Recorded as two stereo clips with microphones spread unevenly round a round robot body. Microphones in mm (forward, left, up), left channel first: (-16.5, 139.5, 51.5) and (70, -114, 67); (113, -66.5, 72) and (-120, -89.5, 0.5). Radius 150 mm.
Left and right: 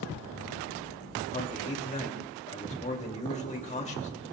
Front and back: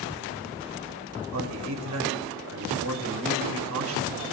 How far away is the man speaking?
About 2.5 m.